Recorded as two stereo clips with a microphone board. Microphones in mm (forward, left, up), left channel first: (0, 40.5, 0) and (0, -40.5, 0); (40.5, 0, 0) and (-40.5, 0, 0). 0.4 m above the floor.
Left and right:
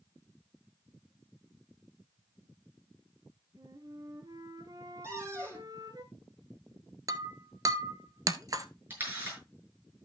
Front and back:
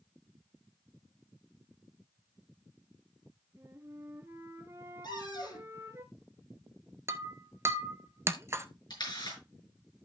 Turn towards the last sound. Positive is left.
turn(degrees=-25)